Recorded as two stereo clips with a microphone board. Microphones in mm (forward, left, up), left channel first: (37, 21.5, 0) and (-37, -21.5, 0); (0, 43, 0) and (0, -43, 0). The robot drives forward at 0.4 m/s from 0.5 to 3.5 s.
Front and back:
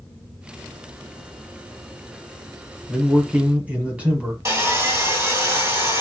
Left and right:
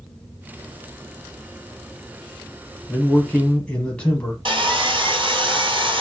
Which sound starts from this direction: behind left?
A man speaking, at 2.9 s.